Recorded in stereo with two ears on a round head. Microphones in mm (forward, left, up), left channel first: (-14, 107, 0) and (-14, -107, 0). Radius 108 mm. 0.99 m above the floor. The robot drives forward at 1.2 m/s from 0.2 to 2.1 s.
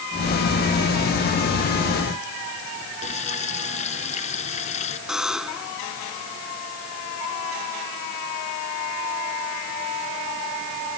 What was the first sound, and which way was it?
Frying, 30° left (ahead or behind).